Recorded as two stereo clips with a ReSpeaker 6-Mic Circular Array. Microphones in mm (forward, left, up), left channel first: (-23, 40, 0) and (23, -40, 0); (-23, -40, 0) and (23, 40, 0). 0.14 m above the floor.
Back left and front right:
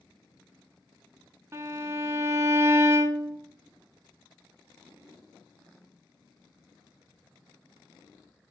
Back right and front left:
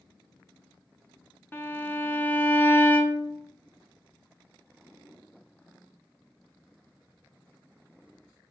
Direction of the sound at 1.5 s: 80° right.